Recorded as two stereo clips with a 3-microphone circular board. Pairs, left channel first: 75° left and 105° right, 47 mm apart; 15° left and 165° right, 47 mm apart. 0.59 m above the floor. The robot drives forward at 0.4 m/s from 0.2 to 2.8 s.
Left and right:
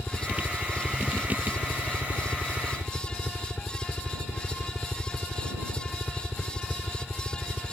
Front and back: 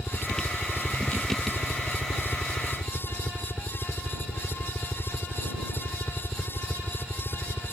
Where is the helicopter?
50° left; by 7.7 s 45° left.